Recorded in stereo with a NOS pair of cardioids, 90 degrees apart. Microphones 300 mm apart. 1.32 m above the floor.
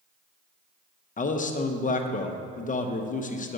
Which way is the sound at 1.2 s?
25° left.